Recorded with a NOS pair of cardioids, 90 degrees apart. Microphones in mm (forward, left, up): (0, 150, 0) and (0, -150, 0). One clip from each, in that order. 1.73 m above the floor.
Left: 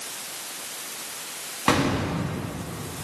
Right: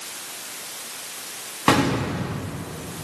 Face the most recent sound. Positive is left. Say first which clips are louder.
# right 3 dB
turn(degrees=-15)